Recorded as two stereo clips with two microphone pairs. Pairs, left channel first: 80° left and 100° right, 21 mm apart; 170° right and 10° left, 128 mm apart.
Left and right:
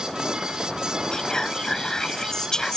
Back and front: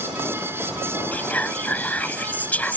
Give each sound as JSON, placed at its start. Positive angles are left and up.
{"t": 1.1, "sound": "whispering", "azimuth_deg": 115}